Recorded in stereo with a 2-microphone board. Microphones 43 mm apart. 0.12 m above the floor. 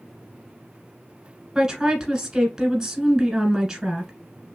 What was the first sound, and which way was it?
A woman speaking, 15° right (ahead or behind).